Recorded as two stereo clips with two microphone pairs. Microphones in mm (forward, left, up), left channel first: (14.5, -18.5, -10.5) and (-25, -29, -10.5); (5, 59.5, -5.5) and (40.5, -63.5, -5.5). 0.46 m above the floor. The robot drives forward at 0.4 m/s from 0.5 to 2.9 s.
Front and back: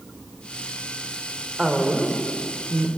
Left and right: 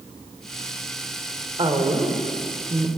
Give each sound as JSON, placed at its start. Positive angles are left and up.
{"t": 1.6, "sound": "a woman speaking", "azimuth_deg": -95, "distance_m": 1.1}